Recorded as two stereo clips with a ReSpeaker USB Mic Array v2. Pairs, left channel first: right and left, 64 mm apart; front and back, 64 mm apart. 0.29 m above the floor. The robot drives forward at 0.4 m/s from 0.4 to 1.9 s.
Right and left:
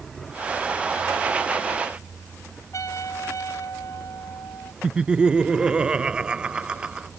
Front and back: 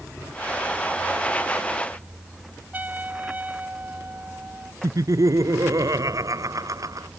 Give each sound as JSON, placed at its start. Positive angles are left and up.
{"t": 2.7, "sound": "a trumpet", "azimuth_deg": -120}
{"t": 4.8, "sound": "laughter", "azimuth_deg": 165}